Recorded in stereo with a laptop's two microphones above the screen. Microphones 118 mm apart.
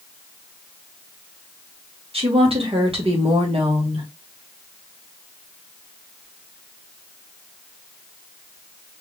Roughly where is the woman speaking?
Right.